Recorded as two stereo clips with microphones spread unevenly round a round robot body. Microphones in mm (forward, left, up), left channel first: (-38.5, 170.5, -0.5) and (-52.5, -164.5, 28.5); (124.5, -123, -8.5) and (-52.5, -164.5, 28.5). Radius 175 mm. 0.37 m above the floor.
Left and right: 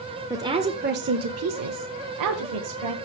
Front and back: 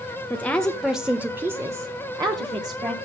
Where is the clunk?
No clunk in this recording.